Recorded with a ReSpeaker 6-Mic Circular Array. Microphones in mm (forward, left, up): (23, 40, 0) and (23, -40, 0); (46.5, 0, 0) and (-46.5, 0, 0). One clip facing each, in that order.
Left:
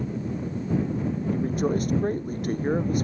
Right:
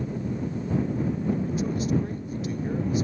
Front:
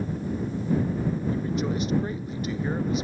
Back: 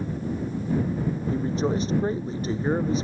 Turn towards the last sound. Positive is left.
turn(degrees=125)